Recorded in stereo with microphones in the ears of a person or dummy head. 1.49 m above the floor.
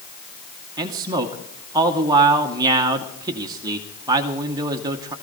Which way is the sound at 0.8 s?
15° right (ahead or behind).